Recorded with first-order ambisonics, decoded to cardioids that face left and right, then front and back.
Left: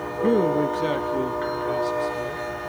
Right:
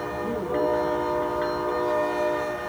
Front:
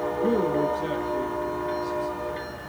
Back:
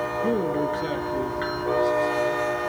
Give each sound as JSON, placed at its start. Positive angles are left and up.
{"t": 0.2, "sound": "a man speaking", "azimuth_deg": 85, "distance_m": 0.5}